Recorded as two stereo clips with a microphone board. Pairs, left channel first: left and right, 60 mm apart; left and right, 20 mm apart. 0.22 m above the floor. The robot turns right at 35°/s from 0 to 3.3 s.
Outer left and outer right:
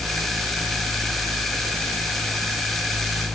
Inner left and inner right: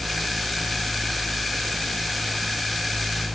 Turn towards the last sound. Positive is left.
No sound to turn to.